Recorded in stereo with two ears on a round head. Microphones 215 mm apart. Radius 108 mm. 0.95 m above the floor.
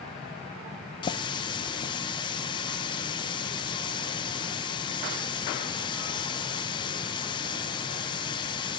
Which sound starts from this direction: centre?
A running tap, at 1.0 s.